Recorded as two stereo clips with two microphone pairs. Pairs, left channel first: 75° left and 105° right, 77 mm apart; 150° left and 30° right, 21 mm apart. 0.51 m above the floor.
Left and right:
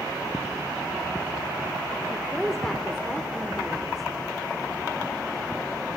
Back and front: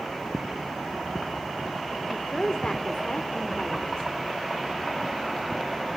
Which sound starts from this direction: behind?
A woman speaking, at 2.1 s.